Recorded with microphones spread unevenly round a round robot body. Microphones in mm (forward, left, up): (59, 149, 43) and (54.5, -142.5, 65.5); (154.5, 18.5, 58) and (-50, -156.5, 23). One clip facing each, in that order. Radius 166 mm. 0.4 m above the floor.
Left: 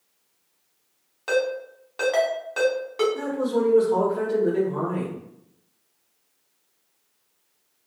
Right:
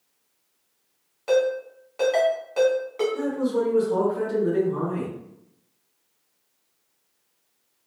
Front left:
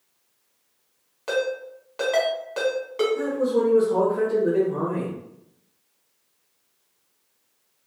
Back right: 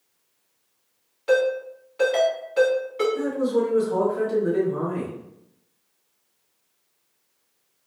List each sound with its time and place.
1.3 s a ringtone: 30° left, 1.4 m
3.1 s a man speaking: 160° right, 1.1 m